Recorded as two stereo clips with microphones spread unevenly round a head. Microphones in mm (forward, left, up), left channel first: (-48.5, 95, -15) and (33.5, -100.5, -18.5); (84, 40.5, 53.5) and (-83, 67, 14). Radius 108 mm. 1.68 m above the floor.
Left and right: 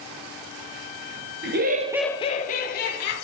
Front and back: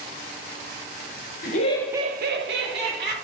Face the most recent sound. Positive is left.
turn(degrees=155)